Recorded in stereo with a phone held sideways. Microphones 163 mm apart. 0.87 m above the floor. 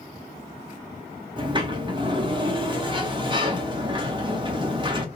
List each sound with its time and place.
1.4 s a sliding door: 30° right (ahead or behind), 0.6 m